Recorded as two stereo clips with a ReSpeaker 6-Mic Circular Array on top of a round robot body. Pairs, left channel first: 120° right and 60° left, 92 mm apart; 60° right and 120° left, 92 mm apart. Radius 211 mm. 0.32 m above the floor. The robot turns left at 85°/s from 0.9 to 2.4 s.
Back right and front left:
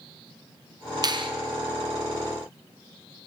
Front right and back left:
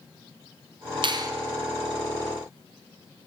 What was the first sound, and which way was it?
A finger snap, 95° left.